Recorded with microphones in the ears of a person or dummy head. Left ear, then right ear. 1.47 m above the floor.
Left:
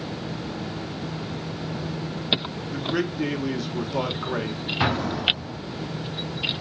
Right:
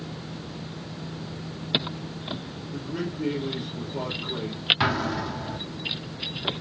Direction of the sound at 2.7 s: 55° left (ahead or behind).